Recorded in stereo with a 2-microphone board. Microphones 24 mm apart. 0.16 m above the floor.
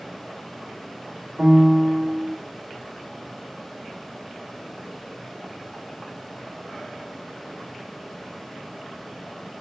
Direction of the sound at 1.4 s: 20° right (ahead or behind).